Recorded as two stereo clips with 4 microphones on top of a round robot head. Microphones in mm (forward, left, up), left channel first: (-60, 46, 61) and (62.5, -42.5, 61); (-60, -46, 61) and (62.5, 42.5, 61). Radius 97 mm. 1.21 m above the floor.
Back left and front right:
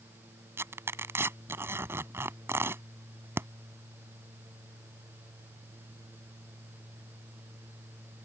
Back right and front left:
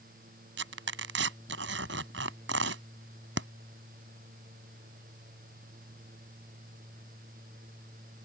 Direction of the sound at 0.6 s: 40° left.